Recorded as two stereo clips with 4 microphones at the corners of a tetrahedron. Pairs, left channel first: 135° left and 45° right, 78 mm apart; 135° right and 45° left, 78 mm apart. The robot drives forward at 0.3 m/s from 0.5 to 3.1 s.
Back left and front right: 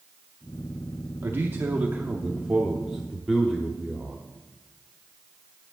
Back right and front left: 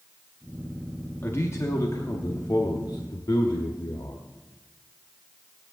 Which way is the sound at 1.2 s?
90° right.